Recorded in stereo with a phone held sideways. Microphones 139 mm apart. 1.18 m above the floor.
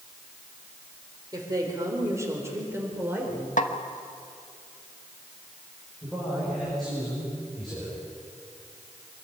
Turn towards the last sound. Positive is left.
turn(degrees=0)  # may be behind; listen again after turning